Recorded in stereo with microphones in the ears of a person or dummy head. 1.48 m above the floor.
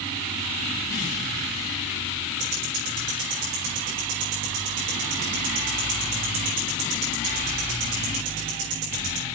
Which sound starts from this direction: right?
Ticking, at 2.4 s.